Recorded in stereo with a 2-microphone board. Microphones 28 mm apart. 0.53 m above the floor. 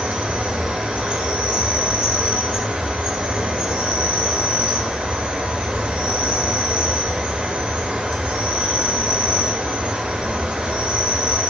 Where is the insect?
40° right (ahead or behind), 0.8 m.